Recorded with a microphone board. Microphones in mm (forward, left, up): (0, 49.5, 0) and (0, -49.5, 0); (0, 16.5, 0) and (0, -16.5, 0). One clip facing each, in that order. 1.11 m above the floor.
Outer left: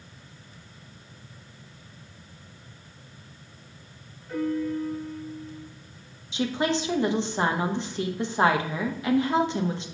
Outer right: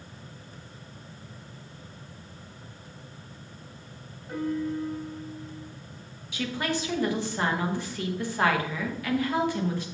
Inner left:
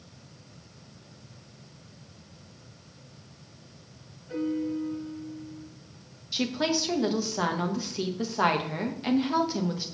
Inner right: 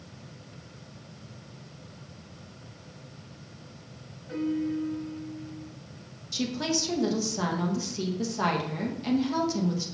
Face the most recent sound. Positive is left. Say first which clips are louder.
# outer left 4 dB, inner left 2 dB
turn(degrees=25)  # may be behind; listen again after turning